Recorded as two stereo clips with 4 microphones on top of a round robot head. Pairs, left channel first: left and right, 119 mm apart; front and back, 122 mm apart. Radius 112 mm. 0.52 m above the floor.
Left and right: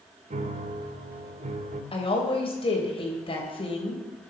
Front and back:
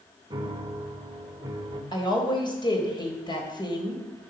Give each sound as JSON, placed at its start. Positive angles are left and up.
{"t": 0.3, "sound": "a piano", "azimuth_deg": -115, "distance_m": 0.9}
{"t": 1.9, "sound": "a woman speaking", "azimuth_deg": 50, "distance_m": 3.5}